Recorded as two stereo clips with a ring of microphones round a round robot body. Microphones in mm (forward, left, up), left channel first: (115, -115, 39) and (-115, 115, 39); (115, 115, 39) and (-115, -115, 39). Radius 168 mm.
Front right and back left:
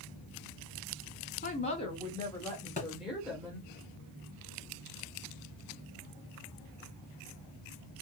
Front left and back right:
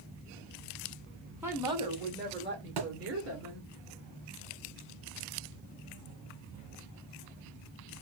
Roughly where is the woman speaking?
Ahead right.